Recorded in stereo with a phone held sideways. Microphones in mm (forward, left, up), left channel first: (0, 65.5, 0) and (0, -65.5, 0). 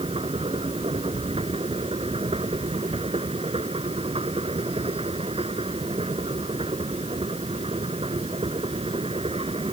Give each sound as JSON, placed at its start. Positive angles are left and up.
{"t": 0.0, "sound": "a machine running", "side_deg": -50}